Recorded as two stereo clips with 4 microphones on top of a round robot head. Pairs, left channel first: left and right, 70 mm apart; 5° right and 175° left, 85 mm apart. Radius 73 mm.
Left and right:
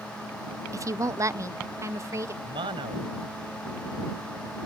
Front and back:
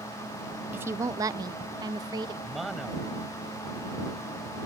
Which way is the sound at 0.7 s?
120° right.